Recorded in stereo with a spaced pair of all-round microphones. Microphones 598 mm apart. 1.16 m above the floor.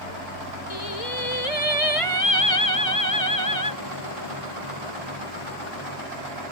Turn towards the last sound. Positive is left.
turn(degrees=65)  # may be behind; listen again after turning